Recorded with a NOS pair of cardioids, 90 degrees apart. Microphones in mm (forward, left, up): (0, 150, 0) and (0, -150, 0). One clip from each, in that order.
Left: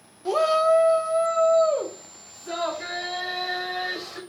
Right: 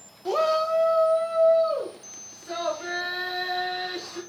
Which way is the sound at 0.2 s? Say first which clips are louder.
Left 3 dB; 5° left.